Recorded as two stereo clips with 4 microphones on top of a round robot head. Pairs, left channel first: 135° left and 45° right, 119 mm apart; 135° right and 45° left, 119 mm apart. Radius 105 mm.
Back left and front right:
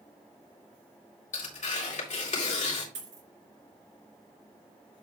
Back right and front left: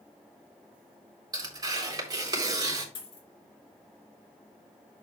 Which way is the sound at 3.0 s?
80° right.